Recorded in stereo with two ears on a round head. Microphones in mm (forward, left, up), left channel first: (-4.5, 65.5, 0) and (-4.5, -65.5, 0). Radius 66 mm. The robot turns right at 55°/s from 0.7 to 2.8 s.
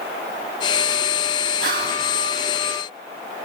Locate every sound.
1.6 s whispering: 65° right (ahead or behind), 1.8 m; by 2.0 s 60° right (ahead or behind), 1.8 m